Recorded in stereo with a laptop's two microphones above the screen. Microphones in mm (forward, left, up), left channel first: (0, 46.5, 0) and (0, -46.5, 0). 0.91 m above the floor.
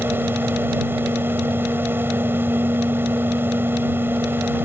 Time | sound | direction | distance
0.0 | a fan | 25° right (ahead or behind) | ?